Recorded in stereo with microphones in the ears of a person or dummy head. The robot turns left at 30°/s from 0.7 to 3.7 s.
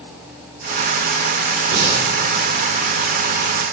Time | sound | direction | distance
1.7 | breathing | 55° right (ahead or behind) | 2.5 m